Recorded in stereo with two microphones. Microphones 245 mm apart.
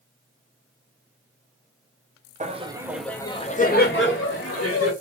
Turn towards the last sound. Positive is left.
turn(degrees=70)  # may be behind; listen again after turning